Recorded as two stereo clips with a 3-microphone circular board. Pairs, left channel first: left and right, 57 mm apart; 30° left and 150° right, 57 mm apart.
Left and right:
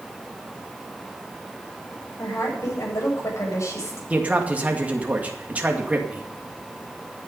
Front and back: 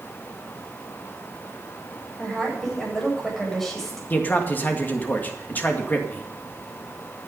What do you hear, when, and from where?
2.2 s a woman speaking: 115° left, 9 m
4.1 s a man speaking: 30° right, 2 m